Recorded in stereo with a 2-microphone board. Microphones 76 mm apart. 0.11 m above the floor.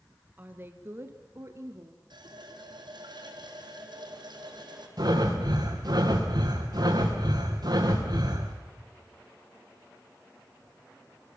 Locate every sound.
0.4 s a woman speaking: 20° right (ahead or behind), 1.6 m; by 2.0 s 40° right (ahead or behind), 1.7 m
2.1 s a running tap: 70° right (ahead or behind), 3 m
5.0 s breathing: 55° right (ahead or behind), 4 m